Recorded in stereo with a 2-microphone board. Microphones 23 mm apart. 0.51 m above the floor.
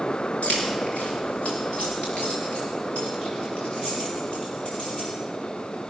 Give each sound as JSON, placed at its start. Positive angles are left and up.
{"t": 0.4, "sound": "keys jangling", "side_deg": 80, "distance_m": 4.0}